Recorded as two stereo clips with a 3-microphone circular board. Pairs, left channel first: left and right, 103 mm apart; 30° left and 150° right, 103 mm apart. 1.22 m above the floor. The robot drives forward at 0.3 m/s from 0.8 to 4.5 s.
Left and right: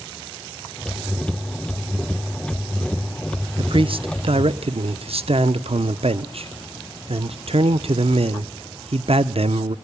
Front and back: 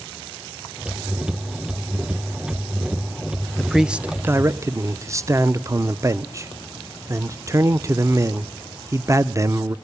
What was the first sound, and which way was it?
A man speaking, 60° right.